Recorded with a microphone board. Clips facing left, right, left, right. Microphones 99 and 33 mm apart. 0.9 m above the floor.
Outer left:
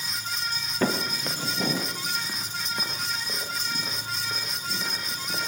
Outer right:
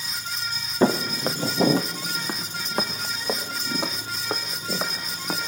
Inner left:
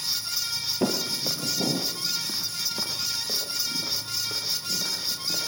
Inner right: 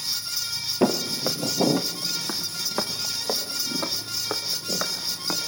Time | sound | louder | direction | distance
0.8 | footsteps | outer right 6 dB, inner right 5 dB | 25° right (ahead or behind) | 1.5 m